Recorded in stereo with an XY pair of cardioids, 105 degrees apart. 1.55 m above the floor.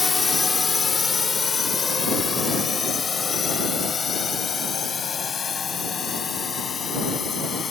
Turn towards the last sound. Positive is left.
turn(degrees=40)